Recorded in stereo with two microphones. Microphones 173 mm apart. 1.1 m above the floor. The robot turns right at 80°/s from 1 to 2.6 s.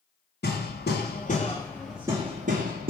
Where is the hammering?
110° left, 1.9 m; by 2.9 s 125° right, 1.9 m.